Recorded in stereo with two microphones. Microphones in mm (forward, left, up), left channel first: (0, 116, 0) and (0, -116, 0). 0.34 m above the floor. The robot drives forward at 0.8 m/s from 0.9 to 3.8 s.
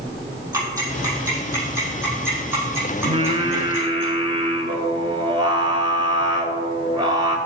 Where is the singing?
30° right (ahead or behind), 1.1 m; by 7.4 s 20° right (ahead or behind), 1.6 m.